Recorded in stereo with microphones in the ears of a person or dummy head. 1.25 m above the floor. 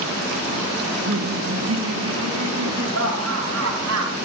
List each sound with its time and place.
0.8 s laughter: 75° right (ahead or behind), 9 m; by 4.1 s 90° right, 8.5 m